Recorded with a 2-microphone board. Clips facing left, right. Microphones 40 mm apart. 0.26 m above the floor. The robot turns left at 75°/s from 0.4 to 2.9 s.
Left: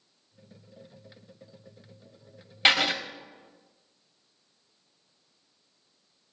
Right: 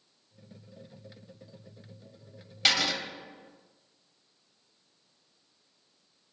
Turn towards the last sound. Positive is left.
turn(degrees=30)  # may be behind; listen again after turning